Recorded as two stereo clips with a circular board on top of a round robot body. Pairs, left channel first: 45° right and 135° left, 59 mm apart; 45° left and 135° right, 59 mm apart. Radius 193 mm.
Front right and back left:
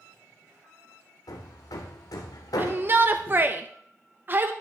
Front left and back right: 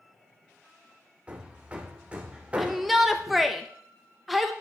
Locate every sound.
1.3 s hammering: 65° right, 0.6 m
2.6 s a shout: 140° left, 1.0 m